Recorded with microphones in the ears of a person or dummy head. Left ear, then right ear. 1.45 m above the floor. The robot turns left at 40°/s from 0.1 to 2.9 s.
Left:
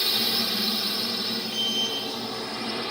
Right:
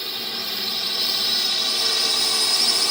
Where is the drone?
5° left (ahead or behind); by 2.9 s 80° right.